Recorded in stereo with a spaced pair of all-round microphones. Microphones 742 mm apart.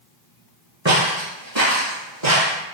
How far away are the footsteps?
About 1.3 m.